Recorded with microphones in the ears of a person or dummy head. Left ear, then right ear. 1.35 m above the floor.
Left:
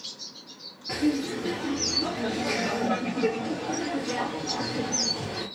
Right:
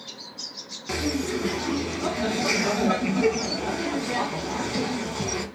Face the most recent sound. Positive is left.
turn(degrees=-70)  # may be behind; listen again after turning